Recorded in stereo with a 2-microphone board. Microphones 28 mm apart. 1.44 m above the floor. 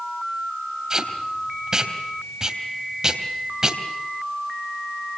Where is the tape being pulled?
25° right (ahead or behind), 3 m.